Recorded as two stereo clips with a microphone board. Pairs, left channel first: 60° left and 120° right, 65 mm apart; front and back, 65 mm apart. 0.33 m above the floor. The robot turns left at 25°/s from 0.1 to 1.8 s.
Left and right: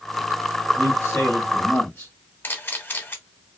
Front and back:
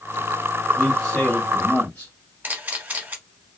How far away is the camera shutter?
About 0.7 m.